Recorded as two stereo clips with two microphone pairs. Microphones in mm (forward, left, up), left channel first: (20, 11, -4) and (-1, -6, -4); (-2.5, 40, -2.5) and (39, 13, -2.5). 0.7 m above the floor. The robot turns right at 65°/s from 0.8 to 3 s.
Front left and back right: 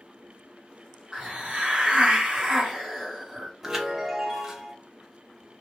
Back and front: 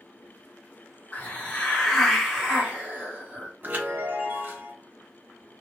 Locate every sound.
1.1 s a hiss: 175° left, 0.9 m; by 3.5 s 65° right, 0.9 m
3.6 s a chime: 70° right, 0.7 m